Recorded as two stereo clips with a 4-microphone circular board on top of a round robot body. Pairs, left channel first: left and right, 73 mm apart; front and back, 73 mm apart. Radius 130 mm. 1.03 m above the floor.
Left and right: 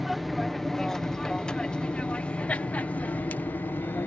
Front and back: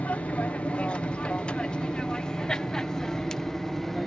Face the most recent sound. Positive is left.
turn(degrees=80)